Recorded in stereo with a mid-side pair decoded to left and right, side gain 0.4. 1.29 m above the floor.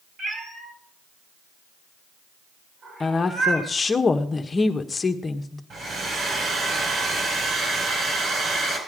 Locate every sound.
0.2 s a cat meowing: 55° right, 3.5 m; by 3.7 s 65° right, 5 m
3.0 s a woman speaking: 35° left, 1.4 m
5.7 s a hair dryer: 60° right, 5 m